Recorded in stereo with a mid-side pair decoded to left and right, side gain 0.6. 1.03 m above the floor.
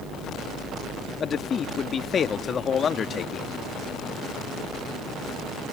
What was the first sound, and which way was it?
A man speaking, 35° left.